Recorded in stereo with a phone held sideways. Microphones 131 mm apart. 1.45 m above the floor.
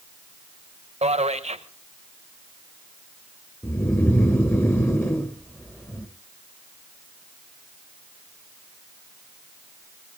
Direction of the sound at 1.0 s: 55° right (ahead or behind).